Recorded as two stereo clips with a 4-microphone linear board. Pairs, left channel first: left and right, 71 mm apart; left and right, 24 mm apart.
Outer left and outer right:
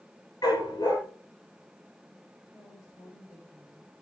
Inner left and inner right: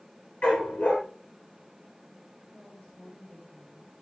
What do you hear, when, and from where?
0.4 s a dog barking: 65° left (ahead or behind), 5 m
2.5 s a woman speaking: 60° left (ahead or behind), 3.5 m